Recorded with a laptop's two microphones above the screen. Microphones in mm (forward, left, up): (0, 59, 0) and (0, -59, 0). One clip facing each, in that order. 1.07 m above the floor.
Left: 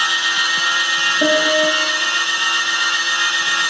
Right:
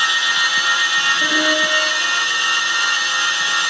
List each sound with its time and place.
1.2 s a piano: 65° left (ahead or behind), 6 m